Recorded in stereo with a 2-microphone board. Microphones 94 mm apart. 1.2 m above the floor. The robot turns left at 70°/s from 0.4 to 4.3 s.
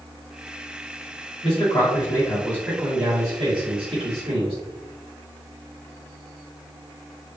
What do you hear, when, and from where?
1.4 s a man speaking: 95° left, 1.8 m; by 4.6 s 105° right, 1.8 m